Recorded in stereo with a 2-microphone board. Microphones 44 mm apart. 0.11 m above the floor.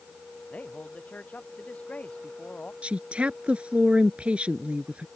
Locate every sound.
0.5 s a man speaking: 30° left (ahead or behind)
2.8 s a woman speaking: 30° right (ahead or behind)